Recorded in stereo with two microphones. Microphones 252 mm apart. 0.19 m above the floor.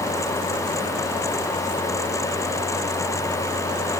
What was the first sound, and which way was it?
Only background noise.